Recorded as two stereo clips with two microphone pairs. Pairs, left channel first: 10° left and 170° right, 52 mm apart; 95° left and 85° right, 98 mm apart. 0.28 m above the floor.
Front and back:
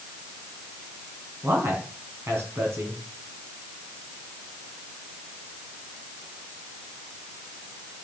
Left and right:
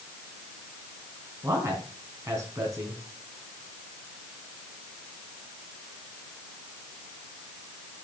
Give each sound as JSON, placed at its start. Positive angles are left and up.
{"t": 1.4, "sound": "a man speaking", "azimuth_deg": -140, "distance_m": 2.5}